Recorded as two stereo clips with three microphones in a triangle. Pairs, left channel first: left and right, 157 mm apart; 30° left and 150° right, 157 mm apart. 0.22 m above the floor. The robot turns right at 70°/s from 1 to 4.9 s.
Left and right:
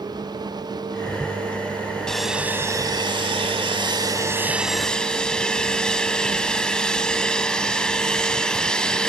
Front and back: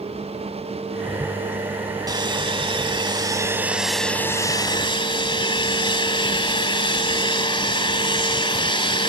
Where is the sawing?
170° left, 1.2 m; by 9.1 s 10° left, 1.2 m.